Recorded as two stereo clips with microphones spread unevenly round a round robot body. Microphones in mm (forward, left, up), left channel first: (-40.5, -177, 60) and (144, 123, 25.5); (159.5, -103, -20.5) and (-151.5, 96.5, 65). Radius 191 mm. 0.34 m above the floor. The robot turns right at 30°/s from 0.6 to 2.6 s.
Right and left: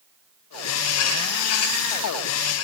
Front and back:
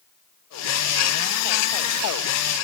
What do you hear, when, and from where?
Only background noise.